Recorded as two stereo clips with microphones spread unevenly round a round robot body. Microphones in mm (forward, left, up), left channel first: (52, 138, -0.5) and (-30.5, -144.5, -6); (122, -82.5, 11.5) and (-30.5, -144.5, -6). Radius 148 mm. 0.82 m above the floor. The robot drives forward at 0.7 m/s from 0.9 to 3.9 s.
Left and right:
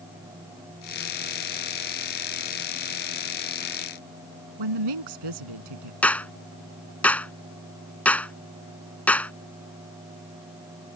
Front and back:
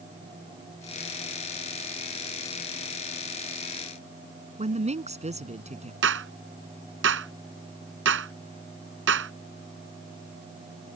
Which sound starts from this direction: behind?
A clap, at 6.0 s.